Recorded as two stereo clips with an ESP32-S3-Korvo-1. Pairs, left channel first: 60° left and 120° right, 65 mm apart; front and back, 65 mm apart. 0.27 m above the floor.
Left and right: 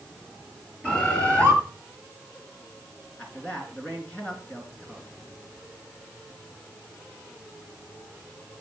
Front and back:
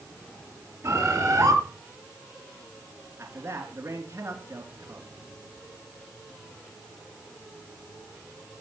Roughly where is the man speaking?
Behind left.